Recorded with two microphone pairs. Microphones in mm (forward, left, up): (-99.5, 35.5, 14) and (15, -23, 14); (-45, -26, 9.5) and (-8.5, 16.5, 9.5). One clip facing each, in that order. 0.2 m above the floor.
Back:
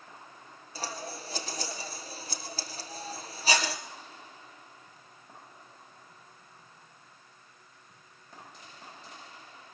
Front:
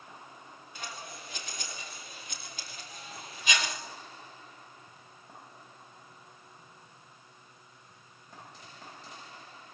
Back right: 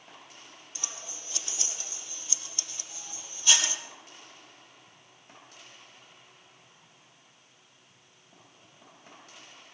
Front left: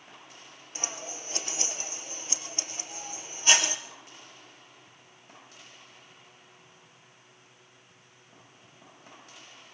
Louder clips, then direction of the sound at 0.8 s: Back 6 dB, front left 7 dB; 100° left.